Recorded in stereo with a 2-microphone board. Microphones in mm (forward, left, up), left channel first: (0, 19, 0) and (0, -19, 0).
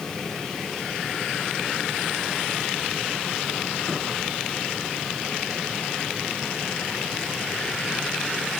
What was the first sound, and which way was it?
Only background noise.